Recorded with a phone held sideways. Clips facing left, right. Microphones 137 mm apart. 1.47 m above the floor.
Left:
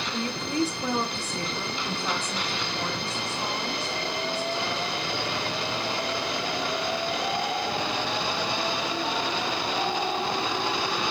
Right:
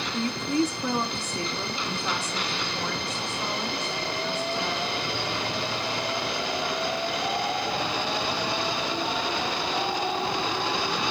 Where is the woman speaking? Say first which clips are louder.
Right 3 dB; 30° left (ahead or behind), 1.1 m.